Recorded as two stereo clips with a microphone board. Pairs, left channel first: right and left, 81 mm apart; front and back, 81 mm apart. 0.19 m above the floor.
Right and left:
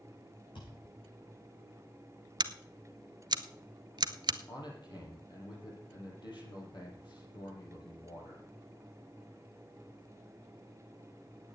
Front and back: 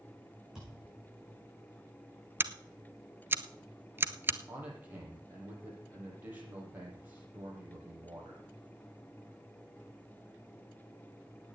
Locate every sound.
0.6 s a thud: 95° right, 6.5 m
2.4 s scissors: 115° left, 0.6 m
4.5 s a man speaking: 115° right, 5.5 m